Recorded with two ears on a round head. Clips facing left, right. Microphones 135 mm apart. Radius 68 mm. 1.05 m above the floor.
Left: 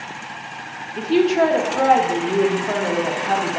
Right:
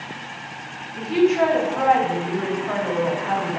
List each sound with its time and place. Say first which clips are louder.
1.0 s a woman speaking: left 2 dB; 35° left (ahead or behind), 1.5 m